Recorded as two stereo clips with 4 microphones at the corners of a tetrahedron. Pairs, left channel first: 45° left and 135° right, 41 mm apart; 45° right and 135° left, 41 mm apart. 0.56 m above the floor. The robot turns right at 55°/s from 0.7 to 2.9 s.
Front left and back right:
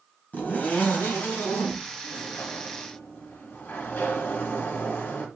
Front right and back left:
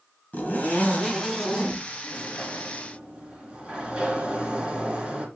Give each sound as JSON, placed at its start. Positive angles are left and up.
{"t": 0.3, "sound": "a zipper", "azimuth_deg": 0, "distance_m": 2.5}
{"t": 2.0, "sound": "a sliding door", "azimuth_deg": 30, "distance_m": 3.0}